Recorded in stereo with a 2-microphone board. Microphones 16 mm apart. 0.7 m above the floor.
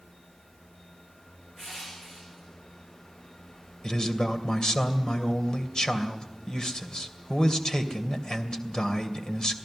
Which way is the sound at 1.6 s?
30° left (ahead or behind).